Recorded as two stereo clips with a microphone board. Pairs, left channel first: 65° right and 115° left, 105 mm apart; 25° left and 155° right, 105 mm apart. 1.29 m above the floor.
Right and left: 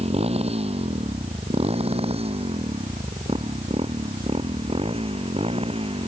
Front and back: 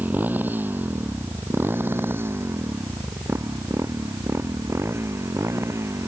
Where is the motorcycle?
130° left; by 6.1 s 140° left.